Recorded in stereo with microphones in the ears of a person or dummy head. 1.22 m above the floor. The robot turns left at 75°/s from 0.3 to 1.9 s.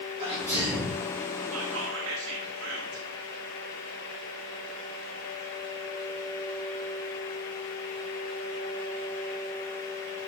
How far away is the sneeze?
About 3.5 m.